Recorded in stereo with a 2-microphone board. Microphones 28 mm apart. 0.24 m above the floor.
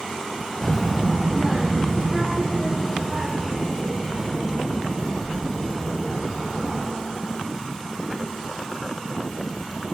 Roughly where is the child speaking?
Left.